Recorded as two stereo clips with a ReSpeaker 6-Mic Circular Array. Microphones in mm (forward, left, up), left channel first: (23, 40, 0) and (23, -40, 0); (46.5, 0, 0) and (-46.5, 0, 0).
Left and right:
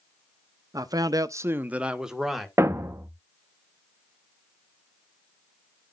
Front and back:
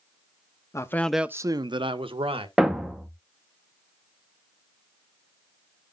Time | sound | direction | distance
0.7 | a man speaking | 50° right | 0.6 m
2.6 | a thud | 100° right | 0.7 m